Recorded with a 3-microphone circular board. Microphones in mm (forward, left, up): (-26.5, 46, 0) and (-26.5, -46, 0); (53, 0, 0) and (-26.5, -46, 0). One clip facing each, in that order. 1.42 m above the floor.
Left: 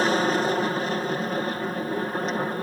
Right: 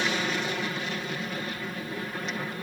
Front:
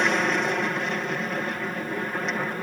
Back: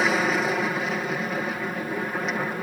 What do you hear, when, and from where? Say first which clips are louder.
0.0 s an aircraft: left 7 dB, back 1 dB; 125° left